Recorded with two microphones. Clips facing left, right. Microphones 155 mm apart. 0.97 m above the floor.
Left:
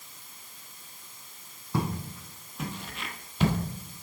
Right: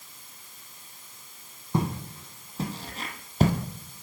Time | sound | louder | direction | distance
1.7 | footsteps | right 2 dB | 20° right (ahead or behind) | 1.8 m